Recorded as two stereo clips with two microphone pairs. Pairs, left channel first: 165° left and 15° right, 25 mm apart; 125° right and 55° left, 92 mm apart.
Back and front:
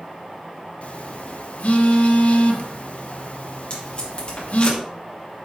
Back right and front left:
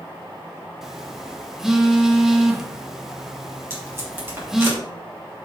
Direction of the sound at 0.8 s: 140° left.